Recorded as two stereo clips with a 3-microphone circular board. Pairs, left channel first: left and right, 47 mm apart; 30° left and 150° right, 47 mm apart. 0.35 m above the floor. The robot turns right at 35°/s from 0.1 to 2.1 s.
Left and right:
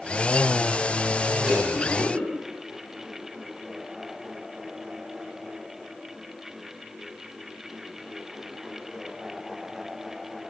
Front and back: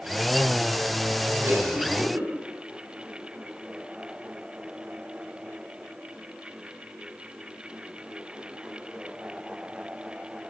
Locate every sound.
1.4 s a cough: 175° right, 8.5 m; by 2.3 s 150° right, 8.5 m